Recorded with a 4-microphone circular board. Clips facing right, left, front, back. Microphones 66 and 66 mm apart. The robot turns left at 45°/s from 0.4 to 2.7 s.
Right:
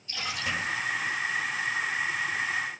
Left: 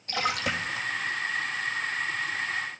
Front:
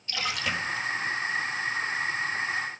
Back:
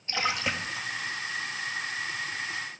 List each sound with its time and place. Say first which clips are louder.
0.1 s a splash: left 4 dB, back 1 dB; 120° left, 1.7 m; by 0.9 s 100° left, 1.7 m